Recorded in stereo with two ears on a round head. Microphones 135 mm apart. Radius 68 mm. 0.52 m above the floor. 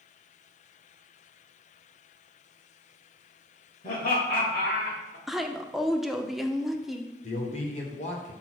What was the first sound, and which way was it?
Laughter, 50° left (ahead or behind).